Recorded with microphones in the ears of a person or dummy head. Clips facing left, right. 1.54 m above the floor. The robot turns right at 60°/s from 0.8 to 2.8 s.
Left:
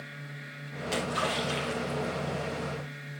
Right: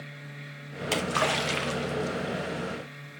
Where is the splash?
115° right, 1.5 m; by 2.4 s 15° right, 1.5 m.